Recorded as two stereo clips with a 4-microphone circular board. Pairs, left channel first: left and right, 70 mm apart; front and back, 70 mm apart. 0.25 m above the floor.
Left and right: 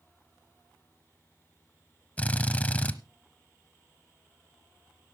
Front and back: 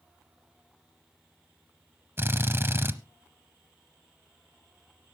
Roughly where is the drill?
Behind left.